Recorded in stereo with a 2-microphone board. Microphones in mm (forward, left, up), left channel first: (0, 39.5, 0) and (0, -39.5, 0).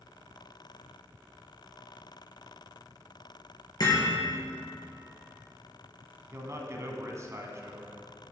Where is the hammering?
55° left (ahead or behind), 4.5 m.